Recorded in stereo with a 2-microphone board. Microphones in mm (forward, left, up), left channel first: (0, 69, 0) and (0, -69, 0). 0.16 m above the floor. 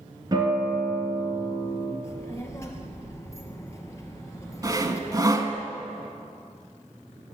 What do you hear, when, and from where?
0.3 s a guitar: 30° right (ahead or behind), 2.5 m
2.0 s a child speaking: 20° left (ahead or behind), 2.5 m
4.6 s sawing: 25° right (ahead or behind), 1.0 m